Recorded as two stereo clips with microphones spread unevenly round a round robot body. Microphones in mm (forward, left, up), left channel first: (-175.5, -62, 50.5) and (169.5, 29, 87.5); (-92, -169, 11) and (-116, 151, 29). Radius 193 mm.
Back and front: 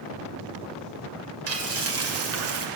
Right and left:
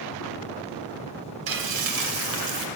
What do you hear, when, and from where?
1.5 s frying: 70° left, 2.5 m